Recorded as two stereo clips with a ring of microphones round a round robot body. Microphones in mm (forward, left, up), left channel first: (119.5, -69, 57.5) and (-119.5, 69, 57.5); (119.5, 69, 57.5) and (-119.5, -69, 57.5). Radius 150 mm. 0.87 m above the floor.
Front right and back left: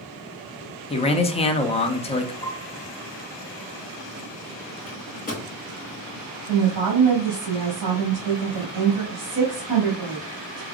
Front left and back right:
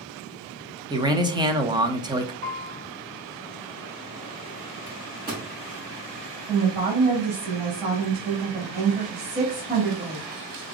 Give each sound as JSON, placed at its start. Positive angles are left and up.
{"t": 0.9, "sound": "a man speaking", "azimuth_deg": -85, "distance_m": 1.0}
{"t": 2.4, "sound": "a piano", "azimuth_deg": -115, "distance_m": 3.0}
{"t": 4.9, "sound": "a microwave", "azimuth_deg": -90, "distance_m": 2.5}
{"t": 6.5, "sound": "a woman speaking", "azimuth_deg": 155, "distance_m": 2.0}